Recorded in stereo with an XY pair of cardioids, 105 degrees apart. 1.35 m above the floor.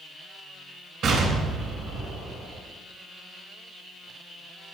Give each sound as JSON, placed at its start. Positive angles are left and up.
{"t": 1.0, "sound": "an explosion", "azimuth_deg": -65, "distance_m": 3.5}